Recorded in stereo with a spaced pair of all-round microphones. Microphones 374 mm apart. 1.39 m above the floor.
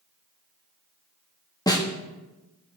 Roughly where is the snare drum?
Centre.